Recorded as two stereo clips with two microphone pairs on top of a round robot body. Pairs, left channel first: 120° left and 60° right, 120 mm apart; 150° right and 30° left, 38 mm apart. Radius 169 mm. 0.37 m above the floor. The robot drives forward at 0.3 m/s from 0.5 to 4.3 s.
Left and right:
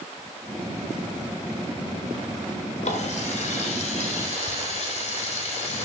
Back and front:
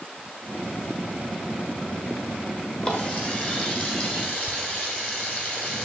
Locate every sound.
2.8 s a running tap: 150° left, 1.7 m; by 5.8 s 155° left, 2 m